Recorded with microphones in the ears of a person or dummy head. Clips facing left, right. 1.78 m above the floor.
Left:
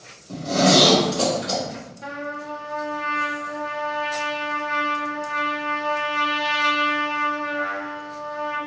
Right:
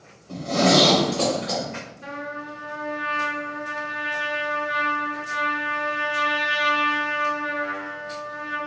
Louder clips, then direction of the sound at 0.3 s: Left 1 dB; 20° left (ahead or behind).